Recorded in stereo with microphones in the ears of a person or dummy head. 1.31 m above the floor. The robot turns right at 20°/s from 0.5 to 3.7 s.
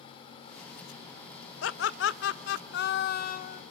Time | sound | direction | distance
1.6 | laughter | 90° left | 1.0 m